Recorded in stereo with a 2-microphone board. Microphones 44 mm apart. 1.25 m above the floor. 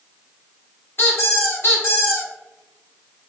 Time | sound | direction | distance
1.0 | a squeak | 50° left (ahead or behind) | 1.9 m